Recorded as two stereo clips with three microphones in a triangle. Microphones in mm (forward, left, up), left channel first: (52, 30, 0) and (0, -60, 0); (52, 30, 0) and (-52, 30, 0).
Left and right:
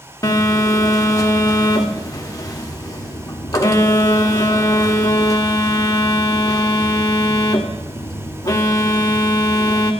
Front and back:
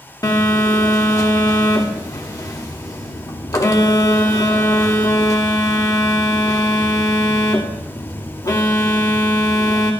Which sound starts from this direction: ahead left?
A phone buzzing, at 0.2 s.